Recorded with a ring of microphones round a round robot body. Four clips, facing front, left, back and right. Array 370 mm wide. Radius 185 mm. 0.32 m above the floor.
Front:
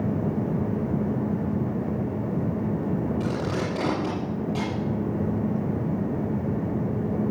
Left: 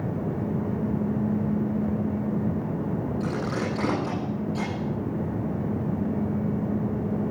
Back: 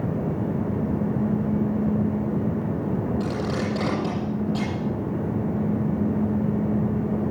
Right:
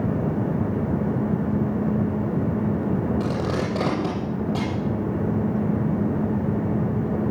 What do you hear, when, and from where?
3.2 s tape being pulled: 100° right, 7.5 m